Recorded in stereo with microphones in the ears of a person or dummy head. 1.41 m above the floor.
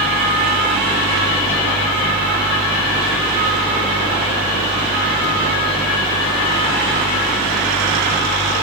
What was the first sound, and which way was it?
A fan, 45° right (ahead or behind).